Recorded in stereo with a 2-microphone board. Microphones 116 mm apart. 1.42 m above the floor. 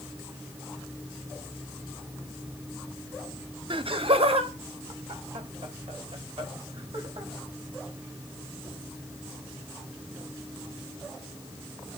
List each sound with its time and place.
3.7 s laughter: 50° right (ahead or behind), 0.5 m; by 7.3 s 65° right (ahead or behind), 2.5 m